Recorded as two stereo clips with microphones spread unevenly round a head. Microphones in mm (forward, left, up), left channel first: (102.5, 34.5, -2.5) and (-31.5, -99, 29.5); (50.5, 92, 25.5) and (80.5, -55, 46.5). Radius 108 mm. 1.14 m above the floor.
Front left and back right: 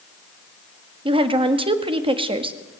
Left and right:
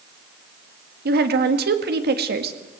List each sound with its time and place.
1.1 s a woman speaking: 70° right, 1.9 m